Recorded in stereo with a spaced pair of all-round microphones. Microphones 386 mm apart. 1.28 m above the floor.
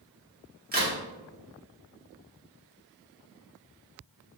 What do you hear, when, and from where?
0.7 s a crack: 25° right (ahead or behind), 0.9 m